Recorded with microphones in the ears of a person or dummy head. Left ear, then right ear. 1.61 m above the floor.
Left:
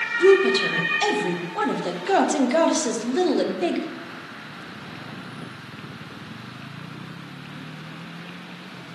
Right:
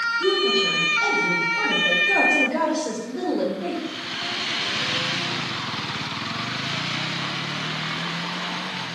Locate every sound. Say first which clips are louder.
0.2 s a woman speaking: left 7 dB; 55° left (ahead or behind), 0.5 m